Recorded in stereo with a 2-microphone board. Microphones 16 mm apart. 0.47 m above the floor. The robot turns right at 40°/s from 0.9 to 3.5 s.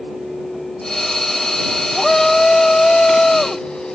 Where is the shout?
35° left; by 4.0 s 100° left.